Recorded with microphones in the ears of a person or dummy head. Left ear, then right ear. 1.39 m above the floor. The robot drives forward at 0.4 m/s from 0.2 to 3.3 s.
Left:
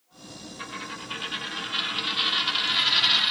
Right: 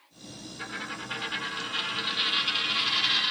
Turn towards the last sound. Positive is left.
turn(degrees=25)  # may be behind; listen again after turning